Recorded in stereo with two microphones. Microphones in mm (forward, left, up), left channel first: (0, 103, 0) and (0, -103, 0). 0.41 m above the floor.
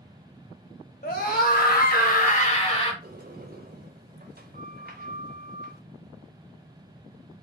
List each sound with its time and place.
1.0 s a scream: 45° left (ahead or behind), 2 m; by 2.9 s 25° left (ahead or behind), 1.8 m
3.0 s a sliding door: 45° right (ahead or behind), 1.0 m